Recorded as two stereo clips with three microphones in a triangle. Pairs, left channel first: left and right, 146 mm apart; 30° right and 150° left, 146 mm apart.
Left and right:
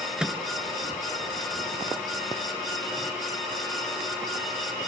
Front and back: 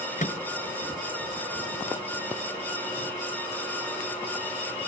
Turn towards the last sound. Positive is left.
turn(degrees=-5)